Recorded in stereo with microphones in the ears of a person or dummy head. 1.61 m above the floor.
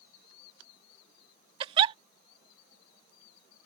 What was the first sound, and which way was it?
A giggle, 30° right (ahead or behind).